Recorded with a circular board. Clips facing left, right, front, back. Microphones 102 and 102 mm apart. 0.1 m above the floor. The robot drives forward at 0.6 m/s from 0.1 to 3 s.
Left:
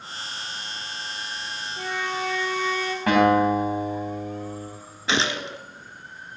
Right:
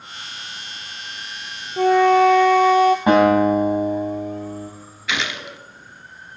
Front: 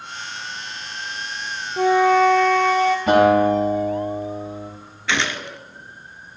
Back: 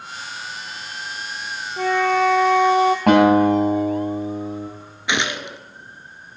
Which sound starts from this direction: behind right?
A guitar, at 3.1 s.